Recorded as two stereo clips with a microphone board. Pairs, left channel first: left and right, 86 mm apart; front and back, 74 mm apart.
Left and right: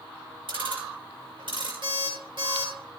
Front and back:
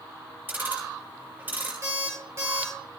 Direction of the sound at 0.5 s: 115° right.